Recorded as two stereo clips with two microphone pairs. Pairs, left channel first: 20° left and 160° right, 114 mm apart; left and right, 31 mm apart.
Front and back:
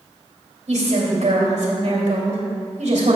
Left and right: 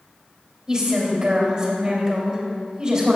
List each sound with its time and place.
0.7 s a woman speaking: 160° right, 2.5 m